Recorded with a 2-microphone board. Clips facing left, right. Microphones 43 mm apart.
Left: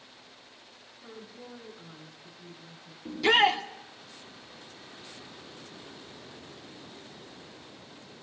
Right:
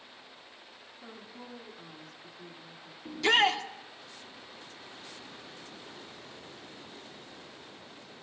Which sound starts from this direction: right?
A woman speaking, at 1.0 s.